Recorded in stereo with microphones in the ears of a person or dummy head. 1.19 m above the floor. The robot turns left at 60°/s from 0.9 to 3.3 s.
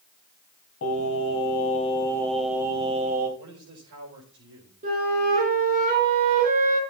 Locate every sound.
0.8 s singing: 90° left, 3.5 m; by 3.3 s 55° right, 3.5 m
3.4 s a man speaking: 60° right (ahead or behind), 4.5 m
4.8 s a flute: 50° right (ahead or behind), 4.5 m